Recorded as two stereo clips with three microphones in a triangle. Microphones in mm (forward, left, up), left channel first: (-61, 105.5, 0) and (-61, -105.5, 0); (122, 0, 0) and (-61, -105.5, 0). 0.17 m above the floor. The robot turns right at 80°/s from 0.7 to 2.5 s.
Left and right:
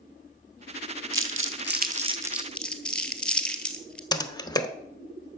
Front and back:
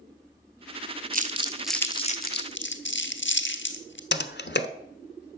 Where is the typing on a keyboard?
25° left, 0.9 m.